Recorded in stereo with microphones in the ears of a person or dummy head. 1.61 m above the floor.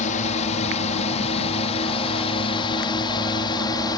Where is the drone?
40° left (ahead or behind); by 4.0 s 20° left (ahead or behind).